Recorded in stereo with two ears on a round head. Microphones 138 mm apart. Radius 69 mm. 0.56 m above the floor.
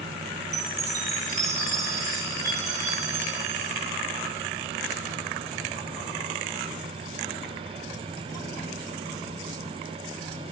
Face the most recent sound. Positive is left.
turn(degrees=-25)  # may be behind; listen again after turning